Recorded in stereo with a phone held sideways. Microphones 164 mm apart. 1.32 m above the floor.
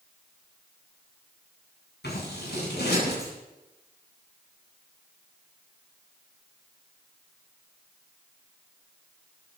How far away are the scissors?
About 9.5 m.